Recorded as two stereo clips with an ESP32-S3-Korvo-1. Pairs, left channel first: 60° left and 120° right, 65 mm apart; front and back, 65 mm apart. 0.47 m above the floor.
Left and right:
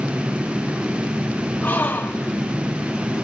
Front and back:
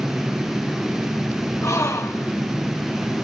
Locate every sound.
1.6 s a gasp: 10° left, 1.9 m